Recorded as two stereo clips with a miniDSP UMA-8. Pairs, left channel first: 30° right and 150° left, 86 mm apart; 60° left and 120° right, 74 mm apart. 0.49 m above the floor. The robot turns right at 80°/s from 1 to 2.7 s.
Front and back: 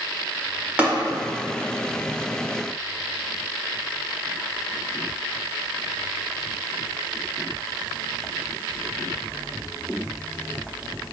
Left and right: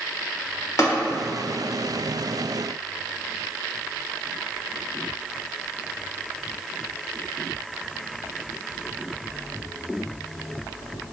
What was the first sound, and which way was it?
Tapping, 80° left.